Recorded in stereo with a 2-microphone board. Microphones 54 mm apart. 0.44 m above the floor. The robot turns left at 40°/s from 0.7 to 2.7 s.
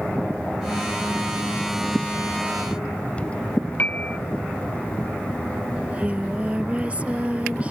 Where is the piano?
30° left (ahead or behind).